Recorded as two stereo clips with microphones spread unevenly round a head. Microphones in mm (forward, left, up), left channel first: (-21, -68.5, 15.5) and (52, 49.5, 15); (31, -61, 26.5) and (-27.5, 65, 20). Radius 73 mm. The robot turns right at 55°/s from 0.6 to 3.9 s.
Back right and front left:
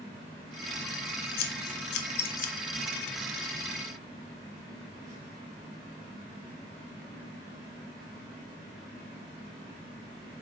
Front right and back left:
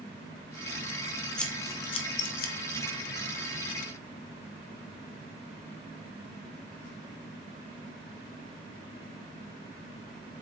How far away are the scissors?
About 1.0 m.